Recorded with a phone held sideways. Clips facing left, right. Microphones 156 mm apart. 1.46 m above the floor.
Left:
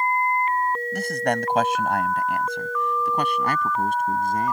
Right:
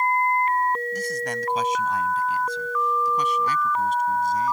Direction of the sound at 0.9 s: 70° left (ahead or behind).